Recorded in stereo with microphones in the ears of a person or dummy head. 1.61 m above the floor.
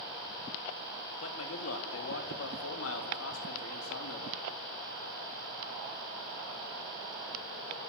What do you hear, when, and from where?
1.2 s a man speaking: 80° left, 3.5 m